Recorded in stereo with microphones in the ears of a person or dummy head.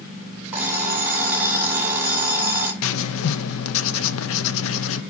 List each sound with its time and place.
0.5 s an alarm clock: 10° right (ahead or behind), 3 m
2.8 s writing: 75° left (ahead or behind), 0.5 m